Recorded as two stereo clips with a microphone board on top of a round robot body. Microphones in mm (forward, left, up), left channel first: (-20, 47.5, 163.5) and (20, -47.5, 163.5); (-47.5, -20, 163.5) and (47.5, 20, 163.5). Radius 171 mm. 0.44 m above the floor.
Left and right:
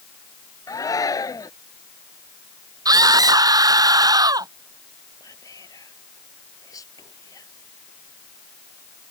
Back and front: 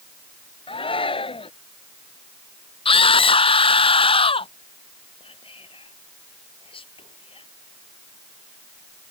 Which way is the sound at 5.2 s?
170° left.